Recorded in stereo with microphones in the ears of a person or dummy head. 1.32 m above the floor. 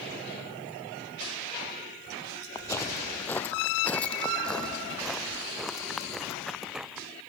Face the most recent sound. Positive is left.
turn(degrees=0)  # may be behind; listen again after turning